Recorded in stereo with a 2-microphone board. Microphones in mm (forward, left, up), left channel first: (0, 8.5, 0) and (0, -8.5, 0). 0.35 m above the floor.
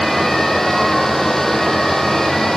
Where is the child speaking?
No child speaking in this recording.